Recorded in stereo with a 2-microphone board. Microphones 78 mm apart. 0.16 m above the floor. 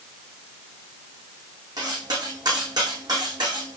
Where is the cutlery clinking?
65° right (ahead or behind), 5 m.